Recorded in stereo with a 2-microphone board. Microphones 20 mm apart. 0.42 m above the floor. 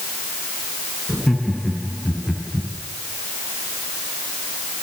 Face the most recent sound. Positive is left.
turn(degrees=-5)  # may be behind; listen again after turning